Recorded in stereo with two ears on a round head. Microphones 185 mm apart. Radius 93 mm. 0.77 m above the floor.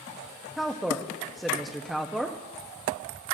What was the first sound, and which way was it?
A woman speaking, centre (ahead or behind).